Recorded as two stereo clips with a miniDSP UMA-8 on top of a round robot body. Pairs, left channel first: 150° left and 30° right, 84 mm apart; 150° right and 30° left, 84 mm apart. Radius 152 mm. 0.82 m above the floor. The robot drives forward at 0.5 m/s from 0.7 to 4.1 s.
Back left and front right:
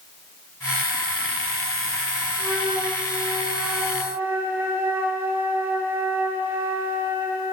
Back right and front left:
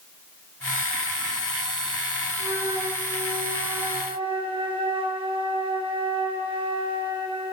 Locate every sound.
2.4 s a flute: 30° left, 5 m; by 7.5 s 35° left, 4 m